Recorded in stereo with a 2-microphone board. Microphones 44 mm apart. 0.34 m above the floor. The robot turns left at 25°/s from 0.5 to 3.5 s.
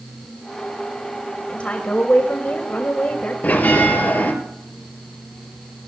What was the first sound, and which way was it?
A woman speaking, 125° left.